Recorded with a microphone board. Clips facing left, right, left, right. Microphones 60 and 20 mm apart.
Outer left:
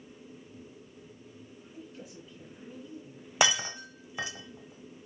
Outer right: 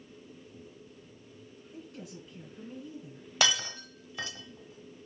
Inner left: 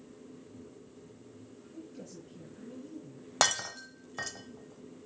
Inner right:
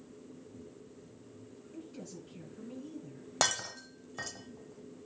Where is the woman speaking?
65° right (ahead or behind), 4 m.